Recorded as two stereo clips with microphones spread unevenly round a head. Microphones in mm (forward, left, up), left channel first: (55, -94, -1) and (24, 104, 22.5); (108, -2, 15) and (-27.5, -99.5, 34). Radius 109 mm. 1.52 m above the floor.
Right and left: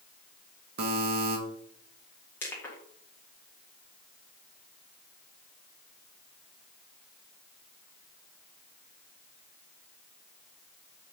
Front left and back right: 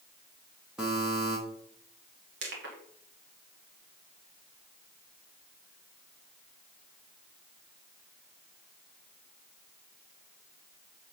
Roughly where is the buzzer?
Behind left.